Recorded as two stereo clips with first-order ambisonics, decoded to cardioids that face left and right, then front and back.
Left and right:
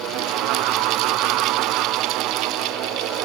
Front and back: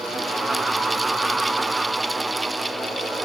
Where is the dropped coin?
I don't hear a dropped coin.